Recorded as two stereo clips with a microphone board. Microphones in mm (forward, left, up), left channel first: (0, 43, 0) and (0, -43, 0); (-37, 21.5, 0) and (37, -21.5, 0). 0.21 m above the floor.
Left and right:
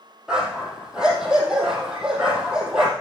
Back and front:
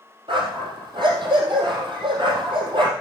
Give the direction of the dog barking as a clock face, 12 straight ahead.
12 o'clock.